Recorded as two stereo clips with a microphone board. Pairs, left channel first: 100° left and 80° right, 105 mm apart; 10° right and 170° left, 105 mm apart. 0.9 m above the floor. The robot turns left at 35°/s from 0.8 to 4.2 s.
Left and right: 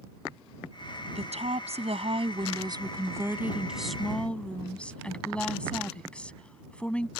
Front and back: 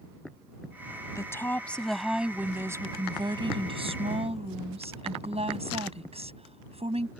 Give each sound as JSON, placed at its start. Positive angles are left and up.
{"t": 1.1, "sound": "a woman speaking", "azimuth_deg": -70}